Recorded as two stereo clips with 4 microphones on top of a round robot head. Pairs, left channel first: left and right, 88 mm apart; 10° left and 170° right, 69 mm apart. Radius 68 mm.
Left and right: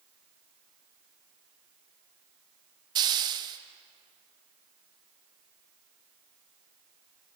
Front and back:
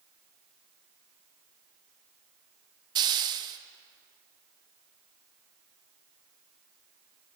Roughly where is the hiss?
Behind right.